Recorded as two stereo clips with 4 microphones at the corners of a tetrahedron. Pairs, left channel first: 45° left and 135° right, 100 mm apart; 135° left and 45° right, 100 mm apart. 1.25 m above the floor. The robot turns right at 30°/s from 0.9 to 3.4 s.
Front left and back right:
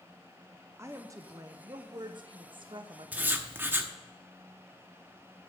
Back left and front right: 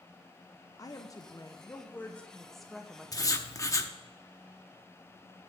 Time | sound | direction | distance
0.8 | a woman speaking | 170° left | 0.7 m
3.1 | writing | 160° left | 0.8 m